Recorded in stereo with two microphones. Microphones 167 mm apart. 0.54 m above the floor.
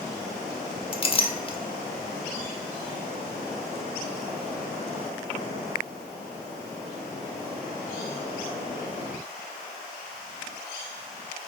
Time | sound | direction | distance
0.9 | a clink | 35° left (ahead or behind) | 0.9 m